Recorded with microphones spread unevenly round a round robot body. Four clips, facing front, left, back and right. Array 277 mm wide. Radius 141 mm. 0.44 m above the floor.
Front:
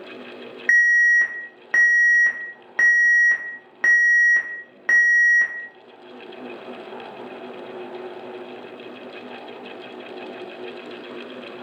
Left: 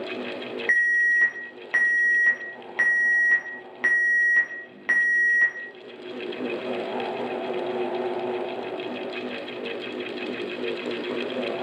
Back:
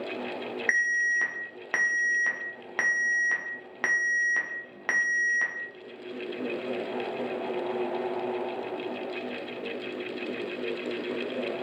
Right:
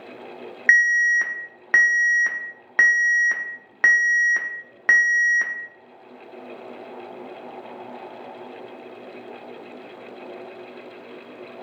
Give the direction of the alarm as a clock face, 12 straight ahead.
3 o'clock.